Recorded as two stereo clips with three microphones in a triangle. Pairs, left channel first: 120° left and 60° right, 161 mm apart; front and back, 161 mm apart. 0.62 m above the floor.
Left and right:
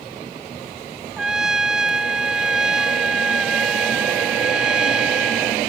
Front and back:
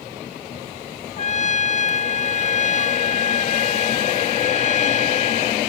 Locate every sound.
1.2 s a trumpet: 25° left